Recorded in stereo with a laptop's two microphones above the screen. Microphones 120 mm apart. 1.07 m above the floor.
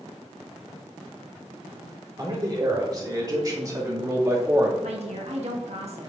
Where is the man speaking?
35° right (ahead or behind), 3 m; by 4.7 s 25° right (ahead or behind), 1.9 m.